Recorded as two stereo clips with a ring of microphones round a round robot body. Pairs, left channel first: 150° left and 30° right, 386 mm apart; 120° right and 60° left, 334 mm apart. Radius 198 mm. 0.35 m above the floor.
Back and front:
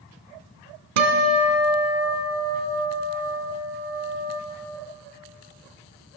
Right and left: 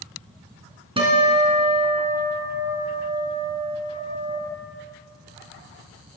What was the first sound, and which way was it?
A guitar, 15° right.